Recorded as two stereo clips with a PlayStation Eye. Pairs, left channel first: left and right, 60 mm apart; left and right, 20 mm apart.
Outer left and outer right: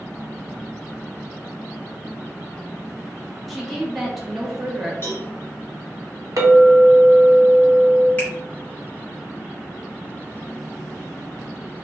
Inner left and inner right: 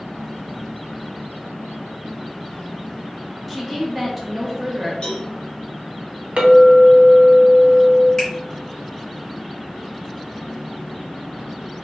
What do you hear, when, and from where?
3.5 s a woman speaking: centre (ahead or behind), 0.7 m
5.0 s a cowbell: 40° left (ahead or behind), 1.1 m
6.4 s a clink: 70° right (ahead or behind), 0.7 m
8.2 s a finger snap: 20° left (ahead or behind), 1.3 m